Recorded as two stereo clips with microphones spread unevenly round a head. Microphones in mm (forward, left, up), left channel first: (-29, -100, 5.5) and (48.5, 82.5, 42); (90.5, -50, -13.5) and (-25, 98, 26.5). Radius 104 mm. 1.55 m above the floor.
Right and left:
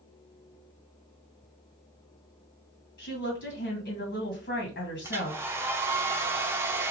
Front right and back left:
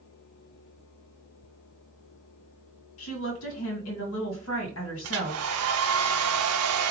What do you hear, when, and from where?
3.0 s a woman speaking: 70° right, 2 m
5.0 s a hair dryer: 145° left, 0.5 m